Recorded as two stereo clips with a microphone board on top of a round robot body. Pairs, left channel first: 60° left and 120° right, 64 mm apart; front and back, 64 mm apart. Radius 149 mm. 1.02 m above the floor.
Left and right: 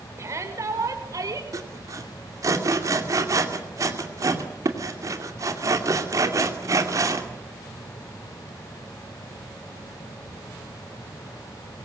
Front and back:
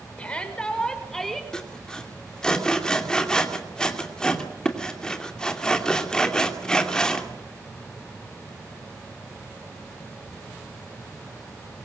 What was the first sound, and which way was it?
A shout, 70° right.